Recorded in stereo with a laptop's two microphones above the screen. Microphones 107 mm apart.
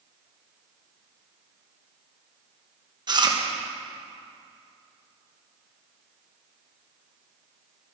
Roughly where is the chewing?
Right.